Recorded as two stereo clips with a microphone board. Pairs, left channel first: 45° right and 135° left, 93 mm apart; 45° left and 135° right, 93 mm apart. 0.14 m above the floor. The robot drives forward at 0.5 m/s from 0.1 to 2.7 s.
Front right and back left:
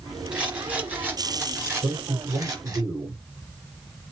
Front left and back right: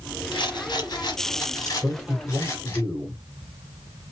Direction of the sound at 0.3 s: 60° left.